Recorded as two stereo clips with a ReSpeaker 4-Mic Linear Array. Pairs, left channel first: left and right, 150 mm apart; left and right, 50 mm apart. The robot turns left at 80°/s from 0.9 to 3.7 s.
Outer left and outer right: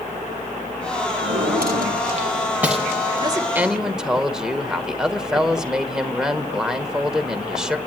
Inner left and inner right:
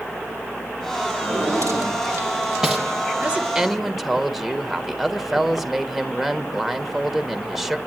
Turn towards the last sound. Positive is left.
turn(degrees=-175)